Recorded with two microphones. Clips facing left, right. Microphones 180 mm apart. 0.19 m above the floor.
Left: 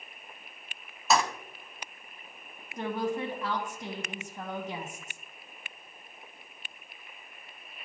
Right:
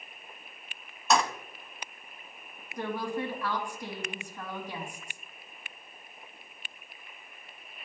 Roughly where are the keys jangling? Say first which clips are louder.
Even; centre.